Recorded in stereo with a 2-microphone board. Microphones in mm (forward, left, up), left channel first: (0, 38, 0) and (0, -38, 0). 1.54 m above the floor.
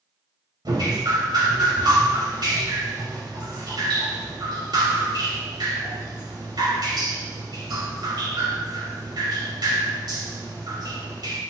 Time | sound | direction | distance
0.7 | dripping | 65° right (ahead or behind) | 3 m